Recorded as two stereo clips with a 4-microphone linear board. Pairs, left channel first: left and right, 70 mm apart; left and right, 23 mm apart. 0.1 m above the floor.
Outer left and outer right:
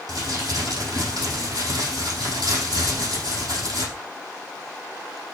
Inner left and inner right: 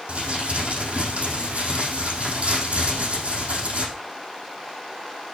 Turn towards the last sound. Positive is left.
turn(degrees=-70)  # may be behind; listen again after turning